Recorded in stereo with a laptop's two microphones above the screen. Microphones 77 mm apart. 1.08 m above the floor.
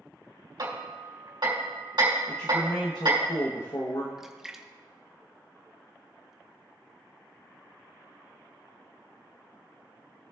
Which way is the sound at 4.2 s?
5° right (ahead or behind).